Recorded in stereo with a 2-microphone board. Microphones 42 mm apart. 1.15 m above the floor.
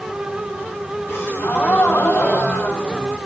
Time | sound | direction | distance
1.1 | a gasp | 70° left (ahead or behind) | 1.4 m